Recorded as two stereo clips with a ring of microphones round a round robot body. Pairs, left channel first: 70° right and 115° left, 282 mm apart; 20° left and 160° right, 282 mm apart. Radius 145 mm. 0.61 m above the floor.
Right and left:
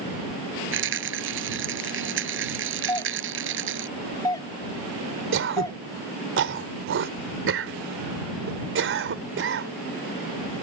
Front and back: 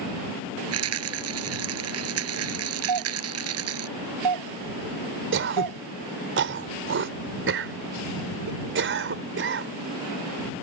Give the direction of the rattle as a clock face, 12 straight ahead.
7 o'clock.